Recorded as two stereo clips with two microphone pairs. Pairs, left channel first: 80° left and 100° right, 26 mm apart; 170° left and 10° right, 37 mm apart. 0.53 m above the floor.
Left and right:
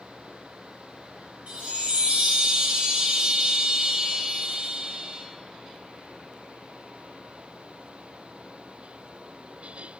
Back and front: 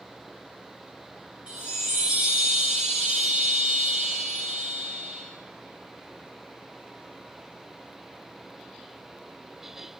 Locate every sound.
1.5 s a chime: 70° right, 0.9 m